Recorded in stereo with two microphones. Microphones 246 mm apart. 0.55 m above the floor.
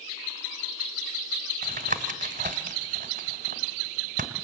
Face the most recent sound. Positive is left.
turn(degrees=-35)  # may be behind; listen again after turning